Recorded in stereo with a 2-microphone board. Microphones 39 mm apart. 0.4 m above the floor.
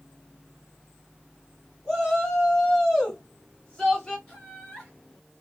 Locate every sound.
1.9 s a shout: 10° left (ahead or behind), 2.5 m; by 4.2 s 20° left (ahead or behind), 1.6 m
4.3 s laughter: 20° left (ahead or behind), 4 m